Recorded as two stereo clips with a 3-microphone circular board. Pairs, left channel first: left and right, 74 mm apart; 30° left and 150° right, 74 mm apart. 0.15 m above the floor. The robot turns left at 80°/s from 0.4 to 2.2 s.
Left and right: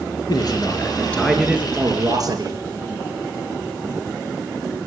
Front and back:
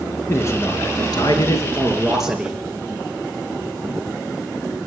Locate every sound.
0.3 s a man speaking: 75° left, 3 m; by 2.6 s 65° right, 3 m